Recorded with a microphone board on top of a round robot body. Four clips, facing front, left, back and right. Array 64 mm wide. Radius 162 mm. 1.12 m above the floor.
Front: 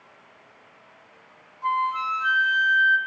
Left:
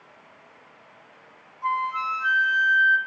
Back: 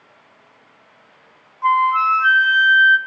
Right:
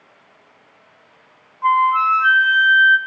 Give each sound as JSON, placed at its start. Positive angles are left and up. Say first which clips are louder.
{"t": 1.6, "sound": "a flute", "louder": "right 11 dB, back 9 dB", "azimuth_deg": -135, "distance_m": 0.7}